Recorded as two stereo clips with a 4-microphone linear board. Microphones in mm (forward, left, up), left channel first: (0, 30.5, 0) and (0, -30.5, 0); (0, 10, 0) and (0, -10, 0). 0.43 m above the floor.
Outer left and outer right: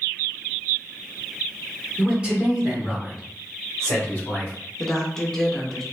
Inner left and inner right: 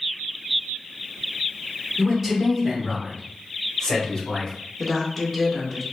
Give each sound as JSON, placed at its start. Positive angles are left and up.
{"t": 2.0, "sound": "a man speaking", "side_deg": -25, "distance_m": 1.3}
{"t": 4.8, "sound": "a woman speaking", "side_deg": 10, "distance_m": 0.7}